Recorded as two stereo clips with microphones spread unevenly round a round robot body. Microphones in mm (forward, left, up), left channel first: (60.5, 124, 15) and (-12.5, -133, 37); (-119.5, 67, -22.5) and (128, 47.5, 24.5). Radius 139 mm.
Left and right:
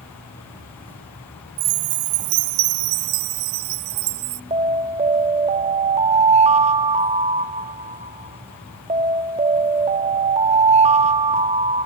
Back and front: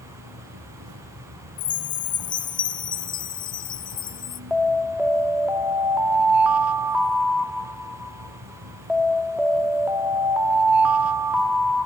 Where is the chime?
110° right, 0.8 m.